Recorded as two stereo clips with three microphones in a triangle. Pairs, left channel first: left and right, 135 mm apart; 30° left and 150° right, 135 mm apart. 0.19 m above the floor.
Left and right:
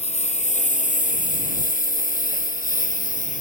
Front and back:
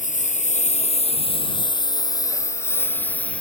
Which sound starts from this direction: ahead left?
A lawn mower, at 0.0 s.